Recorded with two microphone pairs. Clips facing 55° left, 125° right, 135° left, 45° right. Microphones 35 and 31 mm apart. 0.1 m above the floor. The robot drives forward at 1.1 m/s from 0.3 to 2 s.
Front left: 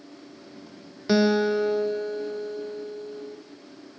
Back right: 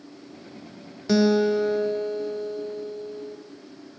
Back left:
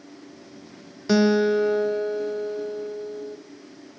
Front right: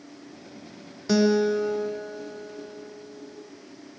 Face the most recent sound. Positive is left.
turn(degrees=150)